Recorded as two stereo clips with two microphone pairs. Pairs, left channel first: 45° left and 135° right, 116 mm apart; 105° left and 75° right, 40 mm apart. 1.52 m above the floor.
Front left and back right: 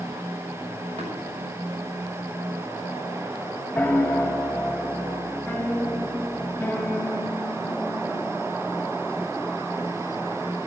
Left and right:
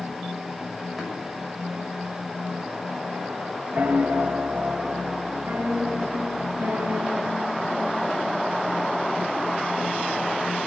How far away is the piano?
About 0.8 m.